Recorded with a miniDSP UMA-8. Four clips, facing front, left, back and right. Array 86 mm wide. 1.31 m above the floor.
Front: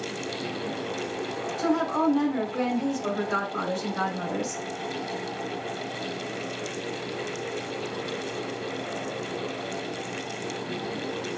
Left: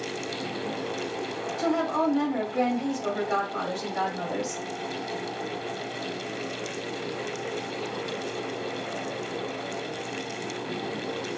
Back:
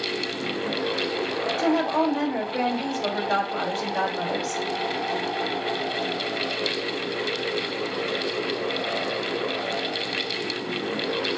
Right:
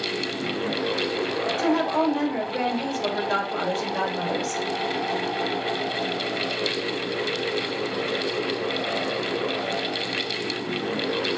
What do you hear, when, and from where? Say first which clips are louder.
1.6 s a woman speaking: right 2 dB, back 2 dB; 140° right, 2 m